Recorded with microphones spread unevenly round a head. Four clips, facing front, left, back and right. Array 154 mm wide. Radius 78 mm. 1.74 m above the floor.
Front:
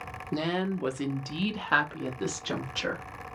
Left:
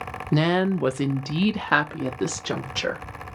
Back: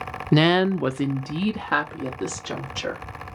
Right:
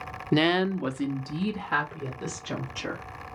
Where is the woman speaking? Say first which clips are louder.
Left 2 dB, back 11 dB; 175° right, 0.5 m; by 3.0 s 95° left, 1.7 m.